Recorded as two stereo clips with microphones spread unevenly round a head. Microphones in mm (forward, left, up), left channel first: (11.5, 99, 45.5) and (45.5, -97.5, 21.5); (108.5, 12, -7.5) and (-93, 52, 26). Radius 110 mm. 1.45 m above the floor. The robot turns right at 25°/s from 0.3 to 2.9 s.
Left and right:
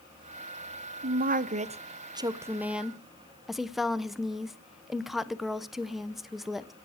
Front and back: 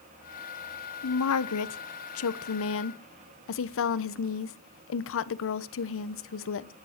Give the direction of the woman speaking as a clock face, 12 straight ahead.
1 o'clock.